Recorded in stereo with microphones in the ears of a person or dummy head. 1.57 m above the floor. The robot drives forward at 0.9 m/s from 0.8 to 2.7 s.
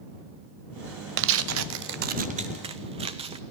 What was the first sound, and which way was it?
Tearing paper, 65° right (ahead or behind).